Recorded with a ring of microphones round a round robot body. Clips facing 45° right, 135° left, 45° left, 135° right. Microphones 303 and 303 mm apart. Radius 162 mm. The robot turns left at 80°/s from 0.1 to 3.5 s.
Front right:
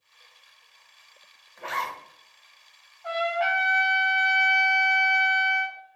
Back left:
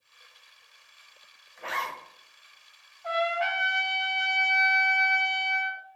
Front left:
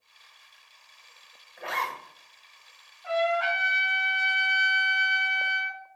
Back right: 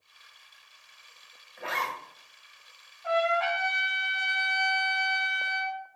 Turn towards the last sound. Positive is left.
turn(degrees=-80)